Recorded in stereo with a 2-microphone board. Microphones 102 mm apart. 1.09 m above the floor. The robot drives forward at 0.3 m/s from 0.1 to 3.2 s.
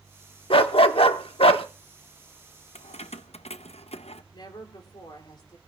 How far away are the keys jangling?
About 0.7 m.